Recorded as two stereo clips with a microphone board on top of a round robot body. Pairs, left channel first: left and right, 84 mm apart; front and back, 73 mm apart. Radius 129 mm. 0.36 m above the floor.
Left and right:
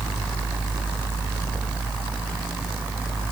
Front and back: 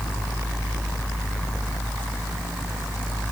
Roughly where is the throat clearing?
I don't hear throat clearing.